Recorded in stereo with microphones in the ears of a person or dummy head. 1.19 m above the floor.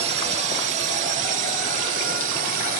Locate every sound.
0.0 s a drone: 40° right (ahead or behind); by 2.8 s 55° right (ahead or behind)